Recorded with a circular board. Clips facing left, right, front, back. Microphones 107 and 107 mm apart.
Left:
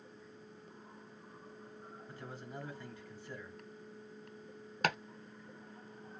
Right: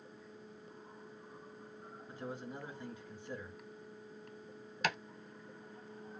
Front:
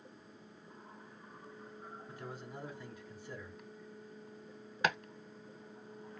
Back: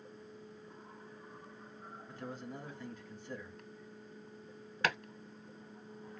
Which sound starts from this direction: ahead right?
A man speaking, at 2.1 s.